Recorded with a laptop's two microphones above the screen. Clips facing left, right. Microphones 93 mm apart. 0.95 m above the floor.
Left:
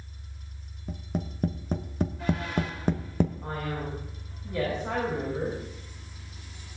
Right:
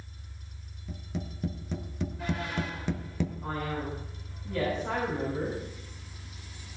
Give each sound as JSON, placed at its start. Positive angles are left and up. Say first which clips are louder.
{"t": 0.9, "sound": "tapping", "louder": "left 4 dB", "side_deg": 45, "distance_m": 1.2}
{"t": 3.4, "sound": "a man speaking", "louder": "even", "side_deg": 15, "distance_m": 6.0}